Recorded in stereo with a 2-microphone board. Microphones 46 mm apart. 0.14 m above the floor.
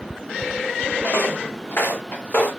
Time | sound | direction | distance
1.0 | footsteps | 45° left (ahead or behind) | 3.5 m